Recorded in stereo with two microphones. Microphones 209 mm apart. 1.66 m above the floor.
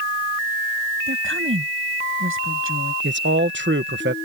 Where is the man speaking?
65° right (ahead or behind).